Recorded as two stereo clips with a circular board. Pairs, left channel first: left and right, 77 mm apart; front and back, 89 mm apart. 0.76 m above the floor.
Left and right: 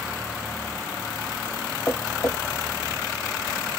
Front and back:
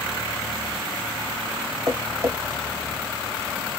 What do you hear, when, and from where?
1.9 s tapping: 135° left, 1.3 m